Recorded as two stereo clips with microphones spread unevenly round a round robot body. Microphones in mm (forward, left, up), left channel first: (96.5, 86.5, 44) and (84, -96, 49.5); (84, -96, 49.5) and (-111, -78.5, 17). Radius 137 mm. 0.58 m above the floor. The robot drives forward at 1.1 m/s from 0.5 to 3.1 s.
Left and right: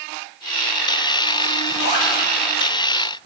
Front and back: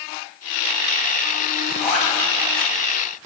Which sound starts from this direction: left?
A zipper, at 1.7 s.